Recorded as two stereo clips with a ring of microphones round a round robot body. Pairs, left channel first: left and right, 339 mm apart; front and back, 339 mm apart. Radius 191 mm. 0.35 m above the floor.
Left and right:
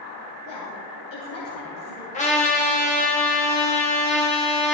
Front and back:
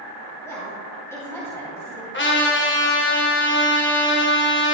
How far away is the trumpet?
About 1.8 m.